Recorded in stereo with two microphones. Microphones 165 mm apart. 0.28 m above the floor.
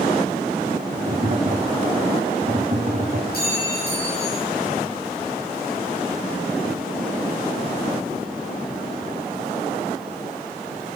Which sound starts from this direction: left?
A clink, at 3.3 s.